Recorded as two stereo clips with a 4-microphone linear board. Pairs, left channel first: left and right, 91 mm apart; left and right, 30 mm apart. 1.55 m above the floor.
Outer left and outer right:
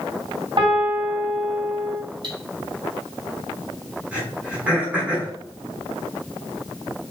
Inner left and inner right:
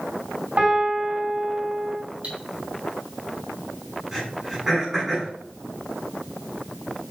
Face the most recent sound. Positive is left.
turn(degrees=-10)  # may be behind; listen again after turning